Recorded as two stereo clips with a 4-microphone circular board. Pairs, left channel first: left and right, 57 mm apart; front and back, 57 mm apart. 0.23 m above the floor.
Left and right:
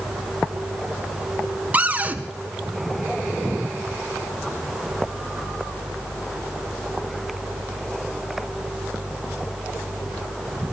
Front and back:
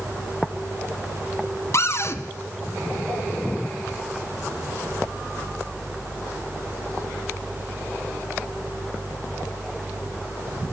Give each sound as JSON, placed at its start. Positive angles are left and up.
{"t": 1.7, "sound": "a cupboard door", "azimuth_deg": -30, "distance_m": 1.4}